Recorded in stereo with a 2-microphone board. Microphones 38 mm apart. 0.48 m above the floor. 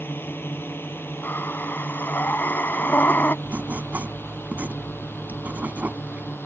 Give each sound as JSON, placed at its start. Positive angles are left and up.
{"t": 0.0, "sound": "a drone", "side_deg": 70}
{"t": 1.2, "sound": "breathing", "side_deg": 60}
{"t": 3.5, "sound": "writing", "side_deg": -50}